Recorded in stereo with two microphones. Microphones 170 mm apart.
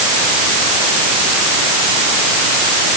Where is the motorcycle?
No motorcycle in this recording.